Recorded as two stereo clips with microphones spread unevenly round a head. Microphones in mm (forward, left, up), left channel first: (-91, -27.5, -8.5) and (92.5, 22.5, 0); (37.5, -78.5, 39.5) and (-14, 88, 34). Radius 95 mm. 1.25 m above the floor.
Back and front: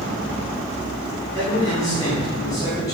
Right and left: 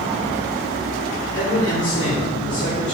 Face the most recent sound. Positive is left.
turn(degrees=-95)